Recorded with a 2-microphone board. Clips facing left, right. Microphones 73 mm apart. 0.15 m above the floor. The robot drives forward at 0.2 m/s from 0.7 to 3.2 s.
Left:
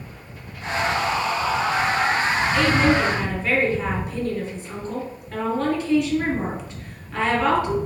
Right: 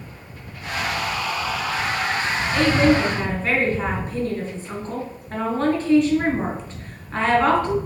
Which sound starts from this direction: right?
A woman speaking, at 2.5 s.